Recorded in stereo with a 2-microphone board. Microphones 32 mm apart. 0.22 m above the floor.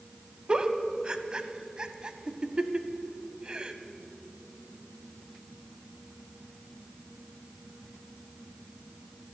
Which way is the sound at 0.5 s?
30° right (ahead or behind).